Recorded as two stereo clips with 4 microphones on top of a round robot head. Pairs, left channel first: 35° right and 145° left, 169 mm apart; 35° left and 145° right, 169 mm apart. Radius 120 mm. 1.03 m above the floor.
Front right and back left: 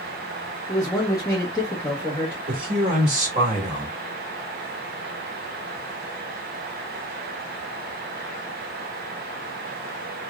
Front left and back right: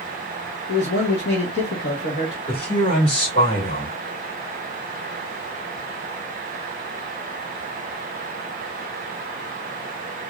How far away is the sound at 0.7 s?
About 1.1 m.